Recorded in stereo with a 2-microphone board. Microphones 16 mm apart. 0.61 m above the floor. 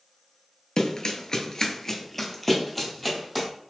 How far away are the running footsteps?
About 0.7 m.